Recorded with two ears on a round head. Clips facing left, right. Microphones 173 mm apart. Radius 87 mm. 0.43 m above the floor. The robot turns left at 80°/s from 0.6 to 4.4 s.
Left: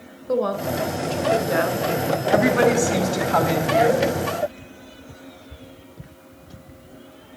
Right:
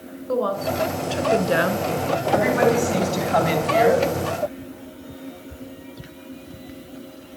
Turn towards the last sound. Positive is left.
turn(degrees=-105)